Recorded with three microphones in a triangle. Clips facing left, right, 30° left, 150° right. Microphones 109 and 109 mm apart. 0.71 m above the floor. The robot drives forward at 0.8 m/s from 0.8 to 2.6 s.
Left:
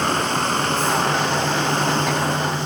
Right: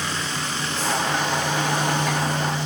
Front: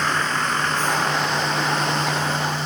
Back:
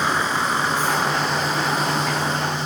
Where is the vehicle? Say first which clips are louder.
Left 8 dB, back 1 dB; 130° left; by 2.7 s 135° left.